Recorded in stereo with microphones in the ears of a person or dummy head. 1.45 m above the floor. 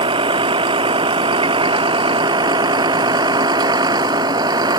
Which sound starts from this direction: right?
A vehicle, at 0.0 s.